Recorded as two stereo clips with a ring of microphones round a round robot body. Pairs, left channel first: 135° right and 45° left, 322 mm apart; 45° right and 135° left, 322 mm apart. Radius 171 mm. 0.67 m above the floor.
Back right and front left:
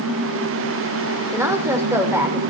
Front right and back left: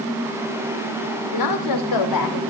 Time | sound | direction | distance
1.3 | a woman speaking | 35° right | 2.5 m